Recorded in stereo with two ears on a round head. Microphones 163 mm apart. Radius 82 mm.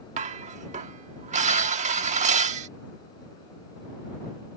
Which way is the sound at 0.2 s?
40° right (ahead or behind).